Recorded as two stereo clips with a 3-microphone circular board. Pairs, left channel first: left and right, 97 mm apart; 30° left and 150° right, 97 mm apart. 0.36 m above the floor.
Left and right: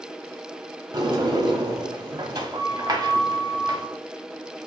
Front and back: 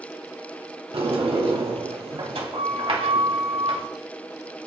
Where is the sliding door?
135° right, 0.9 m.